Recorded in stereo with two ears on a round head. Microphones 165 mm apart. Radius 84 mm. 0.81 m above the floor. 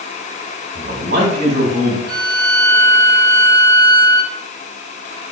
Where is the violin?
50° right (ahead or behind), 1.5 m.